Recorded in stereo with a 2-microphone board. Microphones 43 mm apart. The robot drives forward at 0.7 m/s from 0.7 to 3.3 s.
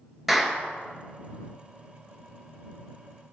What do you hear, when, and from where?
0.3 s a clap: centre (ahead or behind), 1.1 m